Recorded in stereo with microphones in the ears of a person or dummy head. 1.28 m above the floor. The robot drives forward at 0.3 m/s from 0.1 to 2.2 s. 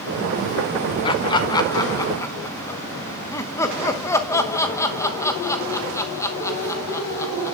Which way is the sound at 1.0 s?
25° left (ahead or behind).